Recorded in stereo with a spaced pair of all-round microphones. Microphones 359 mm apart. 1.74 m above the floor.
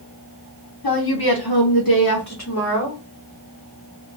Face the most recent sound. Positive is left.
turn(degrees=30)  # may be behind; listen again after turning